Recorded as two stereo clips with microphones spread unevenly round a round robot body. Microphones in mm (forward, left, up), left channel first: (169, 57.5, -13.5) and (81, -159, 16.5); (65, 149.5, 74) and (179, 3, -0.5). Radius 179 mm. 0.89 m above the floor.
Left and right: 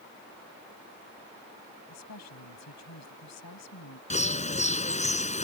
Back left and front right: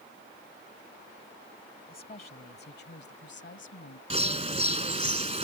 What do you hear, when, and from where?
1.9 s a woman speaking: 85° left; by 4.0 s 110° left
4.1 s a bird: 5° left